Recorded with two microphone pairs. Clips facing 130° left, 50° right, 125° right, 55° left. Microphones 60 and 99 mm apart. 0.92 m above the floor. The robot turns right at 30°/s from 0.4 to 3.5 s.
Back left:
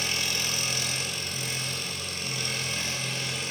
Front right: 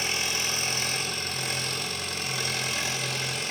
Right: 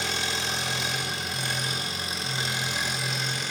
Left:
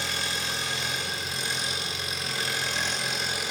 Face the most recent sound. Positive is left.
turn(degrees=-25)